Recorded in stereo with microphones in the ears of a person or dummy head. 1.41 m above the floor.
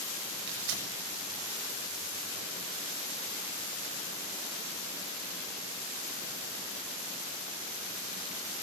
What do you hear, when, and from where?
0.5 s tearing paper: 70° right (ahead or behind), 6.5 m